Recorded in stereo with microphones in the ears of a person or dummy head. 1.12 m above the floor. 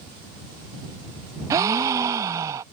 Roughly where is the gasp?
Right.